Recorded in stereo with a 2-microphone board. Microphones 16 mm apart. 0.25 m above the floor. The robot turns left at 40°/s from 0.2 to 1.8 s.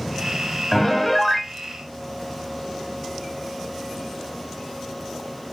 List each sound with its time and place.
0.7 s a piano: 40° left; by 1.5 s 5° left